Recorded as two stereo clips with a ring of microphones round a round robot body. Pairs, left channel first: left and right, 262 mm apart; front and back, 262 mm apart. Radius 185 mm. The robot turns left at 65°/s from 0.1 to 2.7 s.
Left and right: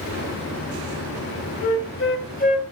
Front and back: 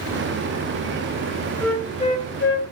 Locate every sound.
1.6 s a flute: 90° left, 1.9 m; by 2.6 s 25° left, 1.9 m